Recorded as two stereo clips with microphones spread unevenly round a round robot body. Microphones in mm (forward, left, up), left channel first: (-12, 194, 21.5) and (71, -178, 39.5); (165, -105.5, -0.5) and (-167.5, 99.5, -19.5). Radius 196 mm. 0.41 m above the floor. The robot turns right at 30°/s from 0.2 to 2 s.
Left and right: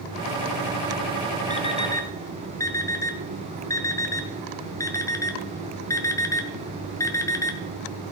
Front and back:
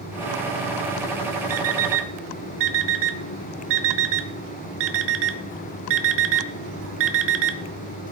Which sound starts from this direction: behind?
An alarm clock, at 1.5 s.